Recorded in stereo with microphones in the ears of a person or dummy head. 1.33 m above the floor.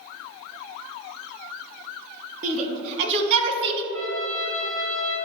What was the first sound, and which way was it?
A shout, 35° right (ahead or behind).